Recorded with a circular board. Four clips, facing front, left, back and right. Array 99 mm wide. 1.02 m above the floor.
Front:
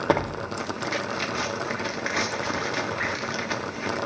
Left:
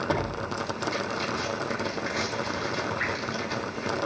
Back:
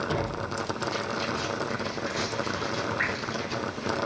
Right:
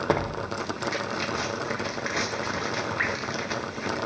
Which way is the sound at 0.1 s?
25° right.